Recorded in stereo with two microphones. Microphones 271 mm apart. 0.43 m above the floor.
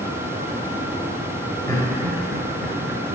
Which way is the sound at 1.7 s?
10° left (ahead or behind).